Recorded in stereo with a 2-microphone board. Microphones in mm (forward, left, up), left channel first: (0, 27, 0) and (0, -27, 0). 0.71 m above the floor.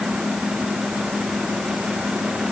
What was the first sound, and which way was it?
Only background noise.